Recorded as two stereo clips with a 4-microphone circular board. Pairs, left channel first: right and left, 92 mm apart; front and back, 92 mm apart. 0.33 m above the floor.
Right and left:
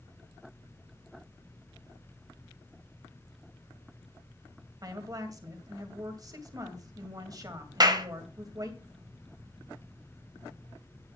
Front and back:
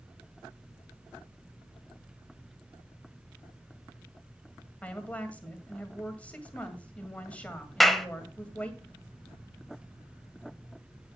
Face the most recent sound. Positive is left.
turn(degrees=85)